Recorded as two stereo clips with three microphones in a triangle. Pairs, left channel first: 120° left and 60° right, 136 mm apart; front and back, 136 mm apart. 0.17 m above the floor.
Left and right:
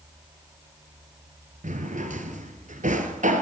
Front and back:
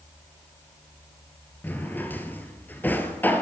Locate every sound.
1.6 s a drawer: 75° right, 1.3 m